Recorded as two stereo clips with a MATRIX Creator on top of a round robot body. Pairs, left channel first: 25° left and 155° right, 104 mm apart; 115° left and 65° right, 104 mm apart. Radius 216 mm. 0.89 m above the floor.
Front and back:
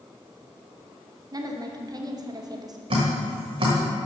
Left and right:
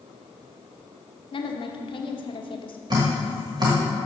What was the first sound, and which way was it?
A woman speaking, 150° left.